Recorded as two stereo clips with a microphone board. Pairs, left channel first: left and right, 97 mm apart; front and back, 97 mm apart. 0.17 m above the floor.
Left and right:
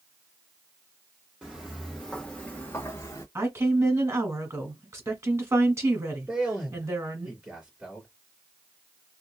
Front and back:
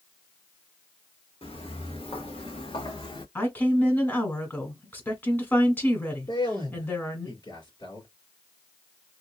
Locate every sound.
1.4 s footsteps: 10° right, 1.4 m; by 3.2 s 35° left, 1.2 m
3.4 s a woman speaking: 55° right, 1.3 m
6.3 s a man speaking: 15° right, 2 m